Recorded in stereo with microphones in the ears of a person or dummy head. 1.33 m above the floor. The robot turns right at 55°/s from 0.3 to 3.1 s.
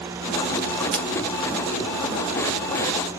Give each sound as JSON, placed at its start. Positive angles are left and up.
{"t": 0.9, "sound": "scissors", "side_deg": 5, "distance_m": 0.6}